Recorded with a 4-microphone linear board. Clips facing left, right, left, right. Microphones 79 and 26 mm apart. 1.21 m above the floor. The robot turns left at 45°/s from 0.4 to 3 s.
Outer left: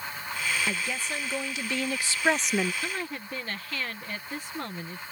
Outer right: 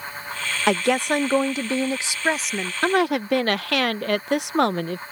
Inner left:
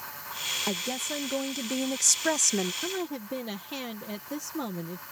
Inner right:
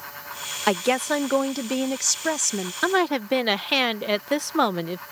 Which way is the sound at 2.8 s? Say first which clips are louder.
Outer right 14 dB, inner right 11 dB; 75° right (ahead or behind).